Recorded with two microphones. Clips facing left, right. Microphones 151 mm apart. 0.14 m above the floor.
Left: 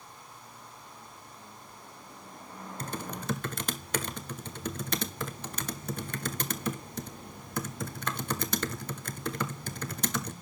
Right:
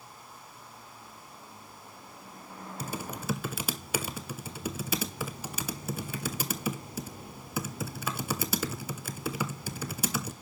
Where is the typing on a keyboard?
10° right (ahead or behind), 0.7 m.